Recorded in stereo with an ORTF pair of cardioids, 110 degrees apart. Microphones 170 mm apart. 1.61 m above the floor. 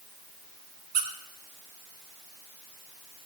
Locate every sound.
0.9 s a squeak: 55° right, 2.5 m